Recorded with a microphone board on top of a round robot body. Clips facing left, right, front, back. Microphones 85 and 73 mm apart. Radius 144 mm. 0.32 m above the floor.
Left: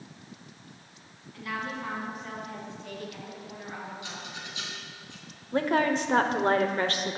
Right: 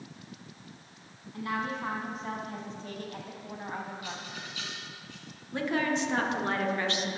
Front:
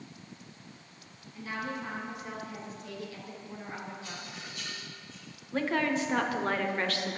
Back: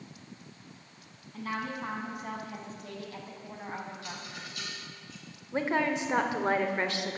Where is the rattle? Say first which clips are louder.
Even, back 1 dB; 160° left, 3.5 m.